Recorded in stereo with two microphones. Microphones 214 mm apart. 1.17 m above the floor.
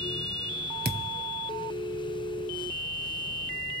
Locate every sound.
0.8 s a thud: 45° right (ahead or behind), 0.9 m